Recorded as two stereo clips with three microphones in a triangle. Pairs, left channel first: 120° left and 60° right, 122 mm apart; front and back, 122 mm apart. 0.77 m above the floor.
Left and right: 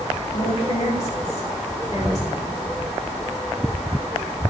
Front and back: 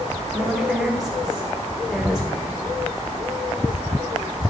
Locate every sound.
0.3 s a woman speaking: 95° left, 1.9 m